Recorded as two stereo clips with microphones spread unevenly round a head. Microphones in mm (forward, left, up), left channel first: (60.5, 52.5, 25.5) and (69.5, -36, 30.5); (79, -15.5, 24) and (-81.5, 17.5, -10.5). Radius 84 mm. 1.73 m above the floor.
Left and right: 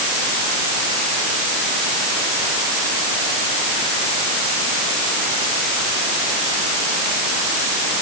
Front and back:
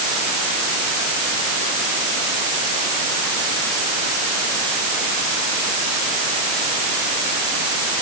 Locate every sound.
Only background noise.